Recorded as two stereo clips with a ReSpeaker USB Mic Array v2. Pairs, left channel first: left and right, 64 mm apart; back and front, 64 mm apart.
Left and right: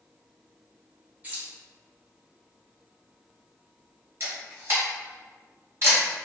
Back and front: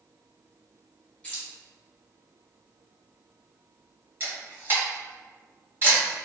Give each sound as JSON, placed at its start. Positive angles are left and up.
{"t": 1.2, "sound": "keys jangling", "azimuth_deg": -125, "distance_m": 0.9}
{"t": 4.2, "sound": "a camera shutter", "azimuth_deg": -50, "distance_m": 1.2}